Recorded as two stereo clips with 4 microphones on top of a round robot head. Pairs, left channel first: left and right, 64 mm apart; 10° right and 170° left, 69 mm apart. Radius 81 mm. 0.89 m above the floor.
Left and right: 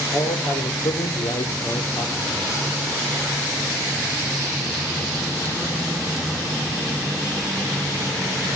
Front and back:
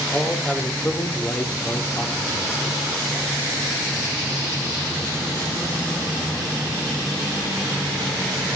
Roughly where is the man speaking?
Left.